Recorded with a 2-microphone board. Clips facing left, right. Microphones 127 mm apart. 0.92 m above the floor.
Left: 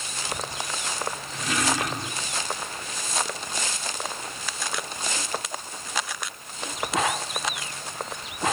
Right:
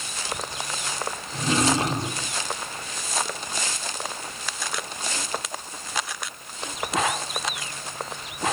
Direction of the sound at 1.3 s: 30° right (ahead or behind).